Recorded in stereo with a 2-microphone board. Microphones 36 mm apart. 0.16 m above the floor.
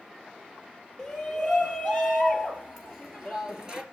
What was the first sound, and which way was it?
A shout, 5° left (ahead or behind).